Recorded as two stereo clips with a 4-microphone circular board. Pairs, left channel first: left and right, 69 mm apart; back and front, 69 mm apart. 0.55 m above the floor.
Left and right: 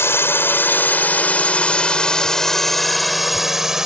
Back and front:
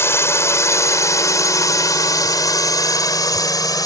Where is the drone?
135° left; by 3.9 s 170° right.